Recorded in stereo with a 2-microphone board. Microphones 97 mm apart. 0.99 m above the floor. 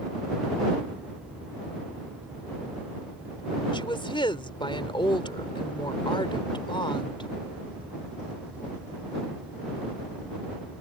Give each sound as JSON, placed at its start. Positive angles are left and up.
{"t": 3.7, "sound": "a woman speaking", "side_deg": 60}